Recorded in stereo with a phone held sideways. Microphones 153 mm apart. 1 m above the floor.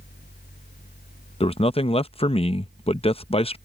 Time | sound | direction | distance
0.0 | a fan | 85° left | ?
1.4 | a man speaking | 40° left (ahead or behind) | ?